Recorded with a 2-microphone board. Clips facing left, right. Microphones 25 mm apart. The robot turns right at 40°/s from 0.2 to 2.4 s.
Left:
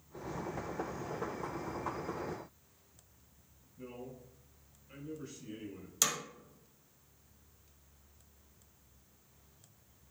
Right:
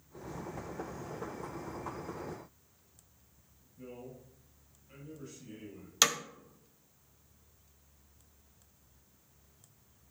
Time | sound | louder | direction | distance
3.8 | a man speaking | even | 15° left (ahead or behind) | 4 m
6.0 | hammering | right 6 dB | 45° right (ahead or behind) | 1.3 m